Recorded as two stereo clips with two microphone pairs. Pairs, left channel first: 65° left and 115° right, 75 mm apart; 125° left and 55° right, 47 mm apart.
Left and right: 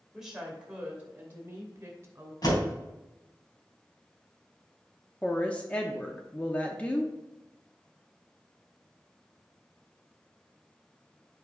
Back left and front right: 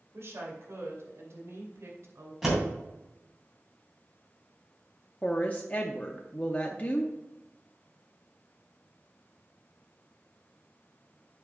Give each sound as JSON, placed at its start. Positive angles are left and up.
{"t": 0.1, "sound": "a woman speaking", "azimuth_deg": -30, "distance_m": 2.5}
{"t": 2.4, "sound": "a door slam", "azimuth_deg": 25, "distance_m": 3.0}
{"t": 5.2, "sound": "a woman speaking", "azimuth_deg": 125, "distance_m": 0.6}